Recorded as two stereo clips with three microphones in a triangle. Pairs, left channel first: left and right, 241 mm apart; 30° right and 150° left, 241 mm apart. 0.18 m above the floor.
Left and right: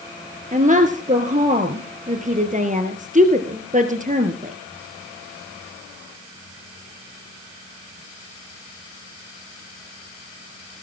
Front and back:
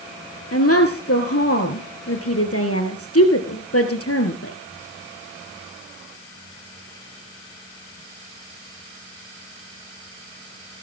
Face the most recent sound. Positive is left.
turn(degrees=-35)